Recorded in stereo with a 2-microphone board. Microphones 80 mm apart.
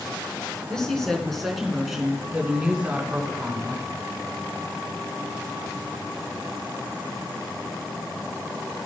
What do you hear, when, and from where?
0.7 s a woman speaking: 10° left (ahead or behind), 4 m; by 3.9 s 30° right (ahead or behind), 3.5 m